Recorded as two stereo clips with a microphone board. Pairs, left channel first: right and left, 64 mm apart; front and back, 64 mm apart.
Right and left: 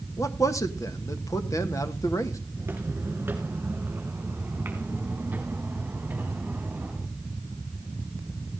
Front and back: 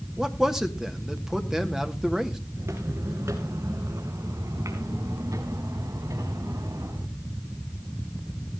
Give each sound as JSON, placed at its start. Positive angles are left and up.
{"t": 0.2, "sound": "a man speaking", "azimuth_deg": -100, "distance_m": 1.3}
{"t": 2.6, "sound": "footsteps", "azimuth_deg": 140, "distance_m": 2.5}